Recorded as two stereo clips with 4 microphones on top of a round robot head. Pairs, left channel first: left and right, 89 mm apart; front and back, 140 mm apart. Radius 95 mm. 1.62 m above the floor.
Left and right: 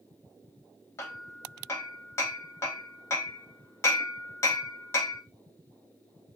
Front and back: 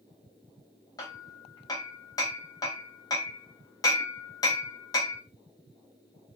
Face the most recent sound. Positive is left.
turn(degrees=50)